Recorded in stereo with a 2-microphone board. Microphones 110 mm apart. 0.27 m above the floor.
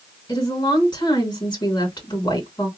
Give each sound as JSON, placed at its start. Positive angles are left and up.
{"t": 0.3, "sound": "a woman speaking", "side_deg": 45, "distance_m": 3.0}